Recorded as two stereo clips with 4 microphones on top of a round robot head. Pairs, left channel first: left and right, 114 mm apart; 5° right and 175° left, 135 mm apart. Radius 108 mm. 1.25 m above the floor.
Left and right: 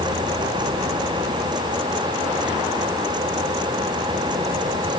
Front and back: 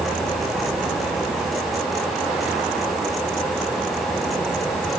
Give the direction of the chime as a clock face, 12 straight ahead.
No chime in this recording.